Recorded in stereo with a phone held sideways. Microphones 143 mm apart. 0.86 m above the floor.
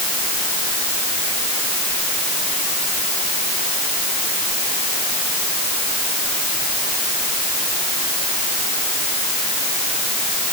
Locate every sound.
Only background noise.